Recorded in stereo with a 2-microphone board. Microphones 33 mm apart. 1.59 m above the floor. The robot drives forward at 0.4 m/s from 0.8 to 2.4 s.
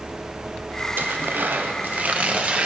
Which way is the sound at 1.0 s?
75° right (ahead or behind).